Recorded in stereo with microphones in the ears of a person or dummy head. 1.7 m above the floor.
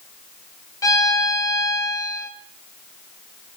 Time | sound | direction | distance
0.8 | a violin | 10° left (ahead or behind) | 1.0 m